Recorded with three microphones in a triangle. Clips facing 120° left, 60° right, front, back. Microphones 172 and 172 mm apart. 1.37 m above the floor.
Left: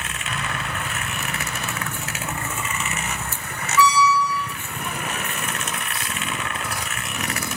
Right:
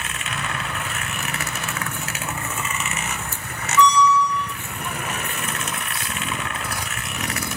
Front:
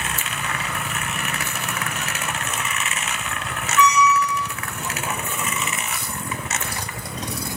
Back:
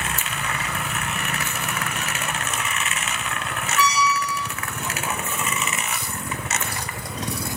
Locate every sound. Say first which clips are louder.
3.8 s a squeak: right 2 dB, front 5 dB; 165° right, 0.5 m